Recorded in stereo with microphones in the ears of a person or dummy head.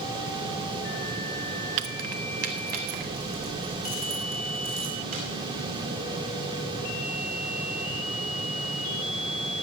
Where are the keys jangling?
50° right (ahead or behind), 0.6 m; by 5.2 s 40° right (ahead or behind), 6 m.